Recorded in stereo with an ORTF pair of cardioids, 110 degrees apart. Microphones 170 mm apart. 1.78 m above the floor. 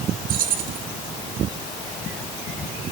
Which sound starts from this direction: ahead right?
Keys jangling, at 0.3 s.